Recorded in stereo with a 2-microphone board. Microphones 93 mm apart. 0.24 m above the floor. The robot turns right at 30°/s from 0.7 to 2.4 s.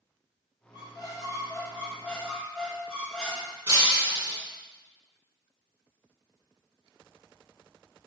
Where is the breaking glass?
35° right (ahead or behind), 1.0 m.